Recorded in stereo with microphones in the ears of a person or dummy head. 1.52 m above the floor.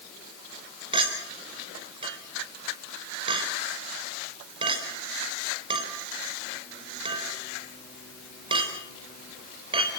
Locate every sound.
0.9 s a clink: 30° right (ahead or behind), 4.5 m